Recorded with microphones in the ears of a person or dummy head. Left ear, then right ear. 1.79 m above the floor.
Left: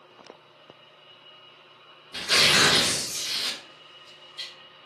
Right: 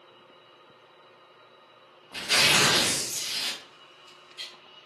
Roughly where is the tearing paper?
Centre.